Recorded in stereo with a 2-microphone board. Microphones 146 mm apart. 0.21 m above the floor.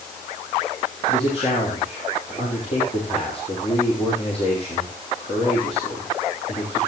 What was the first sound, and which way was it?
A man speaking, 45° left (ahead or behind).